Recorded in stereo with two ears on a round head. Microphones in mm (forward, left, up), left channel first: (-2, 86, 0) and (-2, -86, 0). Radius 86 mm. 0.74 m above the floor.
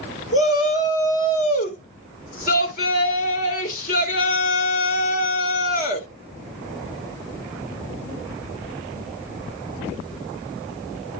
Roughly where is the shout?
Left.